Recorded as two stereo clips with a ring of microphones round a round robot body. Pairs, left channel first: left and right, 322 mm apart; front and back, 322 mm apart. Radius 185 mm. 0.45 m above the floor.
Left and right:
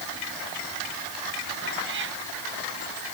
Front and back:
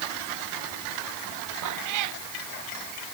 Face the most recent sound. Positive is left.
turn(degrees=-150)